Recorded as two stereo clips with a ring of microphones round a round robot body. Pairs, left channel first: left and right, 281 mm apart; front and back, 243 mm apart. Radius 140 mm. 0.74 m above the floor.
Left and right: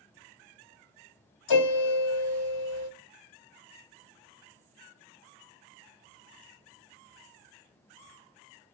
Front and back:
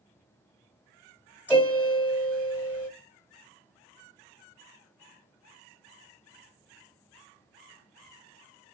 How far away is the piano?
About 1.4 m.